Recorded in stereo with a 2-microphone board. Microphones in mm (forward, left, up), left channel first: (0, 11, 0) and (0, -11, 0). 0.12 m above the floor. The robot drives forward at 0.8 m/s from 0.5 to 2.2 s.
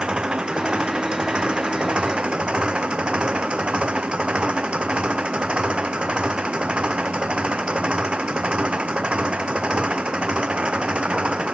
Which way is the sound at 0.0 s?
45° right (ahead or behind).